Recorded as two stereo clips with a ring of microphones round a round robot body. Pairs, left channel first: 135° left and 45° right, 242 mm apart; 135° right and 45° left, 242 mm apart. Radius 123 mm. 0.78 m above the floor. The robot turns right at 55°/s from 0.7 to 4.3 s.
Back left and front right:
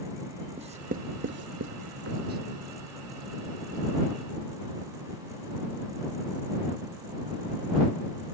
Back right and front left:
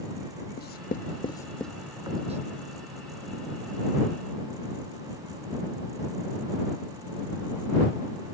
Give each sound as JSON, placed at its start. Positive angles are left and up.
{"t": 0.6, "sound": "writing", "azimuth_deg": -100}